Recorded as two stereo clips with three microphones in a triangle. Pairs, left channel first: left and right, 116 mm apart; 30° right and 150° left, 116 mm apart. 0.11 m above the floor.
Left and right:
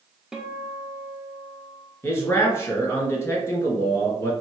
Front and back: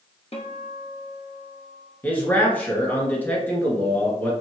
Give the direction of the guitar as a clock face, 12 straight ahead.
12 o'clock.